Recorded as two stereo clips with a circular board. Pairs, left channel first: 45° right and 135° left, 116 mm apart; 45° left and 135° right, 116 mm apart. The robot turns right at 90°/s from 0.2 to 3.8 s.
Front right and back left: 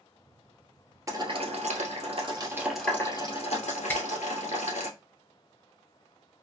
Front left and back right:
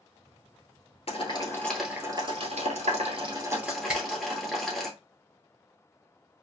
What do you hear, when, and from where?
1.1 s boiling: 70° left, 1.3 m; by 4.9 s 45° right, 1.3 m
3.9 s a finger snap: 70° right, 0.9 m